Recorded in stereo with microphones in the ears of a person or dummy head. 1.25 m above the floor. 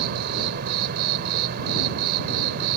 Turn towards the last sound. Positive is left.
turn(degrees=-55)  # may be behind; listen again after turning